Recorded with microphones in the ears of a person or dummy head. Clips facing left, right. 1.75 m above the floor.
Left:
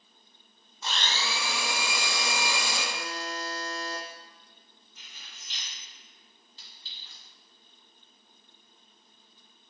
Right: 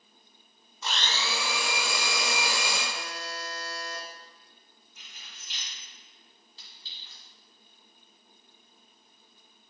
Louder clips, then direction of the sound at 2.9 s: Left 3 dB; 55° left (ahead or behind).